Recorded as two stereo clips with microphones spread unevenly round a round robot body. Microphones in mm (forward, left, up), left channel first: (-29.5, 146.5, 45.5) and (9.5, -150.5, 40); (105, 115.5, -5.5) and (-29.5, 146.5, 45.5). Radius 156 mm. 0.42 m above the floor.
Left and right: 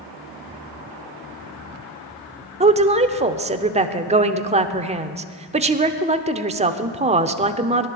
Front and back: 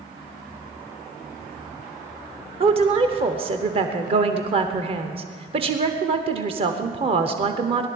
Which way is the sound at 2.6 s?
135° right.